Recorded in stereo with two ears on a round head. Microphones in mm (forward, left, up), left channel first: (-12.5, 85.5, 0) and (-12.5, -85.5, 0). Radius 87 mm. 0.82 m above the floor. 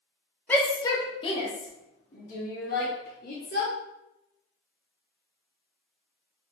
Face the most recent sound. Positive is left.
turn(degrees=50)  # may be behind; listen again after turning